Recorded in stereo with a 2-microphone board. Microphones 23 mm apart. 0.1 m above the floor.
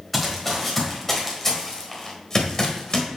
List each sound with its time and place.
0.1 s running footsteps: 5° left (ahead or behind), 3 m; by 3.1 s 35° left (ahead or behind), 2.5 m